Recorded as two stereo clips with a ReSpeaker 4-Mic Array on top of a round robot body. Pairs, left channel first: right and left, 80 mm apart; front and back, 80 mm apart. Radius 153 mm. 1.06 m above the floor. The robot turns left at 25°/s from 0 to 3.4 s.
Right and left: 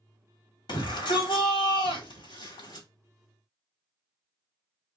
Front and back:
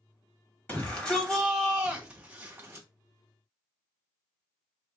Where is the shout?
65° right, 3 m; by 2.9 s 120° right, 3 m.